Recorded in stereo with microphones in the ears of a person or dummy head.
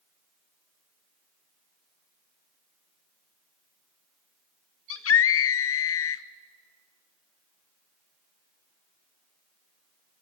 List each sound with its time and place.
4.9 s a scream: 70° left (ahead or behind), 1.6 m